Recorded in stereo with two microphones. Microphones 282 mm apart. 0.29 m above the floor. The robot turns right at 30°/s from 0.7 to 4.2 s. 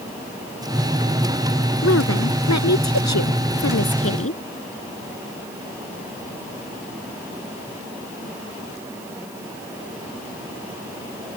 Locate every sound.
1.8 s a woman speaking: 55° left; by 4.4 s 125° left